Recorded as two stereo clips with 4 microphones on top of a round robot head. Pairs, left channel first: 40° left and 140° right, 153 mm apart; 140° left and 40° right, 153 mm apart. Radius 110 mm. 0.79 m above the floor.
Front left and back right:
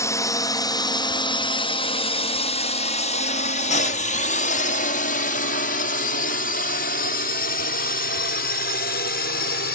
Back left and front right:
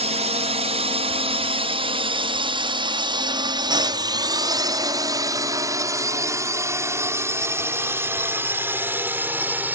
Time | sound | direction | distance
0.0 | a drone | 25° right | ?